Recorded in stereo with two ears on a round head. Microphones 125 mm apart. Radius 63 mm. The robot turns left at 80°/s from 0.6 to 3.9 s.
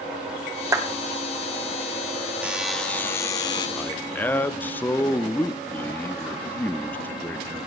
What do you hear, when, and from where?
0.7 s a clap: 20° right (ahead or behind), 1.7 m; by 0.9 s 30° right (ahead or behind), 1.7 m
2.4 s a buzzer: 160° right, 1.0 m; by 3.7 s 100° left, 1.0 m
3.8 s a man speaking: 10° left (ahead or behind), 0.7 m; by 7.7 s 15° left (ahead or behind), 0.7 m